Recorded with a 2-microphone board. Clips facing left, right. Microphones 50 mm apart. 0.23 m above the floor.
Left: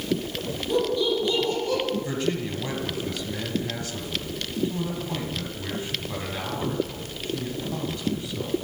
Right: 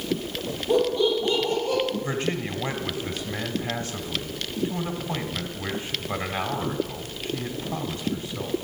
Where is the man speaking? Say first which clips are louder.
Even; 30° right (ahead or behind), 1.7 m.